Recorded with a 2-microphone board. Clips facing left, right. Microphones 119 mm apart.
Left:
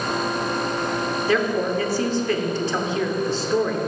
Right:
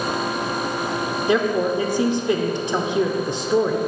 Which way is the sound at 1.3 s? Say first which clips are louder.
Right 3 dB; 15° right (ahead or behind).